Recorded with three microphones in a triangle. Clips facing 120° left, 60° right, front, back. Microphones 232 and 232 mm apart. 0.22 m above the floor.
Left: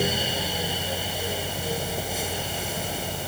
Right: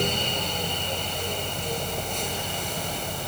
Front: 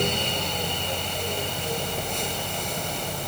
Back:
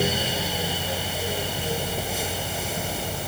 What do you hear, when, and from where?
Only background noise.